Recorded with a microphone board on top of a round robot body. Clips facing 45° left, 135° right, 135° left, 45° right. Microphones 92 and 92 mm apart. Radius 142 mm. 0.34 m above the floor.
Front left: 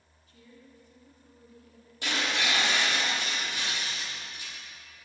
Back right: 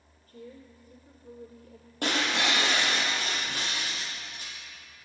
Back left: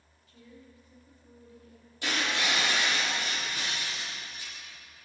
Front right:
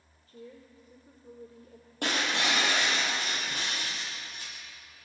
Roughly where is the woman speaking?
Right.